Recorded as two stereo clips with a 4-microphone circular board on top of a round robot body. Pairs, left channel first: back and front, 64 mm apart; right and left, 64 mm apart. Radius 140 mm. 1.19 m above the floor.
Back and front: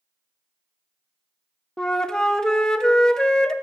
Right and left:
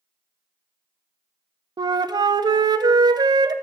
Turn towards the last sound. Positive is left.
turn(degrees=100)